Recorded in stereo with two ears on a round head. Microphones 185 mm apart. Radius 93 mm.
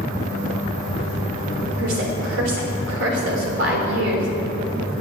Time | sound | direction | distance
1.8 | a woman speaking | 65° right (ahead or behind) | 3.5 m